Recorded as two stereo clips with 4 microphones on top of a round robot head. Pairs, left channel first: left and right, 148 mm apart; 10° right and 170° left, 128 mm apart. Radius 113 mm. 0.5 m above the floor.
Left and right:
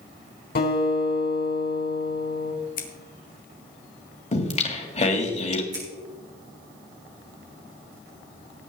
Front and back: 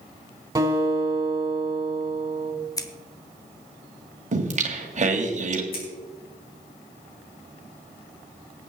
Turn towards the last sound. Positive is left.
turn(degrees=-20)